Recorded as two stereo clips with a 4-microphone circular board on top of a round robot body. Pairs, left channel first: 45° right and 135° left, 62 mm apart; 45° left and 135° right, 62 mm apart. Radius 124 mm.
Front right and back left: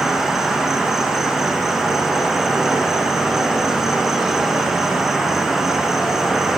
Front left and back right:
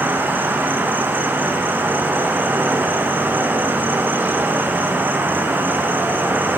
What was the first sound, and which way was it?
An insect, 145° right.